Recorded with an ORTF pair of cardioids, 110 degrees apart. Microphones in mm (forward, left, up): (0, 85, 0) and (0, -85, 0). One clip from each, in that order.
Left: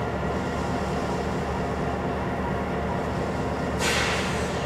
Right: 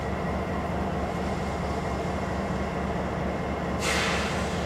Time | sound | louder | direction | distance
0.0 | an engine running | left 2 dB | 70° left | 4.5 m